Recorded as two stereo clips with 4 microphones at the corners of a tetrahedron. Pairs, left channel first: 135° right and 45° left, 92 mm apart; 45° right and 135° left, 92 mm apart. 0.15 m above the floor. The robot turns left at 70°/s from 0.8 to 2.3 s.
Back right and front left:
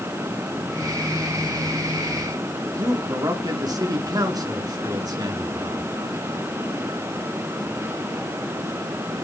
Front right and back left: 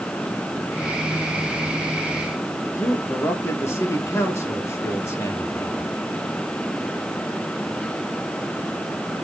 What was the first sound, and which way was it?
A man speaking, 10° left.